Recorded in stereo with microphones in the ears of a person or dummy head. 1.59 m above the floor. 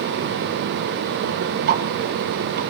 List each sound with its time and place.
1.7 s ticking: 50° right (ahead or behind), 1.4 m